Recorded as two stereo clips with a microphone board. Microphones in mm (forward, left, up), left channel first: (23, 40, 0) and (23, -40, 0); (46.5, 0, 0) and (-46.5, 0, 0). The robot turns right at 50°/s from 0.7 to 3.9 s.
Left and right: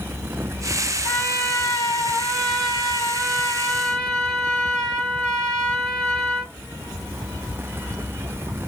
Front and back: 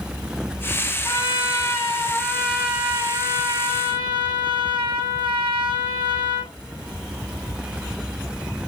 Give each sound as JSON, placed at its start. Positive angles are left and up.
{"t": 1.0, "sound": "a trumpet", "azimuth_deg": 25, "distance_m": 1.8}